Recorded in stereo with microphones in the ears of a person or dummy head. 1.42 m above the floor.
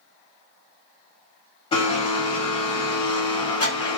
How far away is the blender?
About 1.6 m.